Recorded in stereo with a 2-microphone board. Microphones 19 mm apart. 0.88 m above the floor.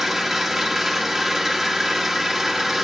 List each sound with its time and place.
0.0 s an engine running: 10° right (ahead or behind), 1.5 m